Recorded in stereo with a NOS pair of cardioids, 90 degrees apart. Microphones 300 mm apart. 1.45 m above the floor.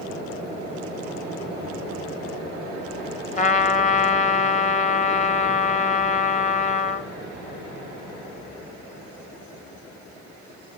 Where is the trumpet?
25° left, 1.0 m.